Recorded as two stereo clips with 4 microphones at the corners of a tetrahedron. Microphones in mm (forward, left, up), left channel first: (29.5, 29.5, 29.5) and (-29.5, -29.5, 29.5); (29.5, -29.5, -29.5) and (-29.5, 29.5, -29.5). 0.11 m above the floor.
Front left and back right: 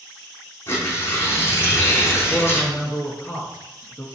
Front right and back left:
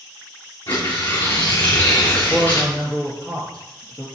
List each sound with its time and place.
0.7 s tearing paper: 15° right, 2.5 m
2.3 s a man speaking: straight ahead, 1.6 m